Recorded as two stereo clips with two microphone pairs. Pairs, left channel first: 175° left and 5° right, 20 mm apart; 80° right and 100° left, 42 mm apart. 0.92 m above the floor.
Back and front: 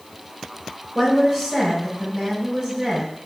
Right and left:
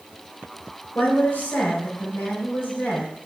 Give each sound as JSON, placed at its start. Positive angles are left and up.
{"t": 0.9, "sound": "a woman speaking", "azimuth_deg": -70, "distance_m": 4.5}